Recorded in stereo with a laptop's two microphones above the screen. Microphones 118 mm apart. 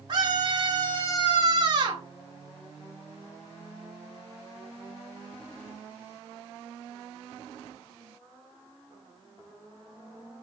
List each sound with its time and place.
0.1 s a scream: 35° right (ahead or behind), 0.9 m